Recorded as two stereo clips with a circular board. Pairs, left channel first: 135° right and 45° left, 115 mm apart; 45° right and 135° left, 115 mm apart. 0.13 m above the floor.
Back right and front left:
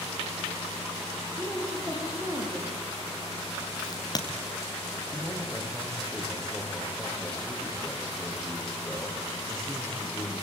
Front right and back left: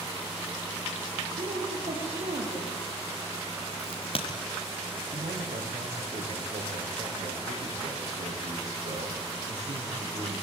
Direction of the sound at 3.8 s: 80° right.